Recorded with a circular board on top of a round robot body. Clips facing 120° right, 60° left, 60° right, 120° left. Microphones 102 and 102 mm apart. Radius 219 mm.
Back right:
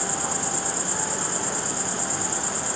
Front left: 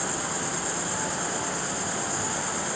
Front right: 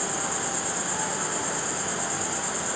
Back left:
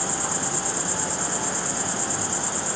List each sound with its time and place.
0.0 s an insect: straight behind, 0.9 m